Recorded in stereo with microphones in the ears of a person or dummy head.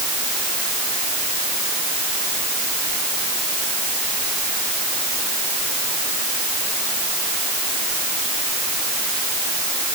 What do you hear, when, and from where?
Only background noise.